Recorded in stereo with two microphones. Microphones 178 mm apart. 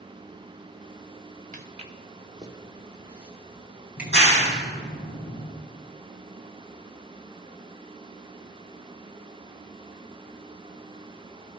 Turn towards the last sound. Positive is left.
turn(degrees=75)  # may be behind; listen again after turning